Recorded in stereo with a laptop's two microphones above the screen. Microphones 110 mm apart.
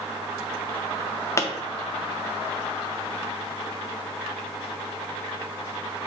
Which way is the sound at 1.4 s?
25° left (ahead or behind).